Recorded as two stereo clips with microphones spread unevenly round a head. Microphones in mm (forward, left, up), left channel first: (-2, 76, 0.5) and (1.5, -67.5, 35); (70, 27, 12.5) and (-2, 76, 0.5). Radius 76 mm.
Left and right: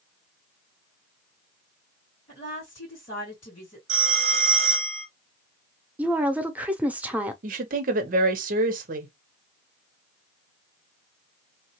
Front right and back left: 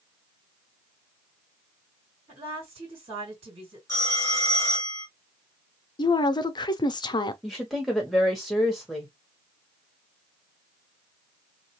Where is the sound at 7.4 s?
125° right, 0.8 m.